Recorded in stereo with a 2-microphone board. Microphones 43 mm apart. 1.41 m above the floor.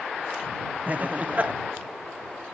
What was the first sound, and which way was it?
Laughter, 40° right (ahead or behind).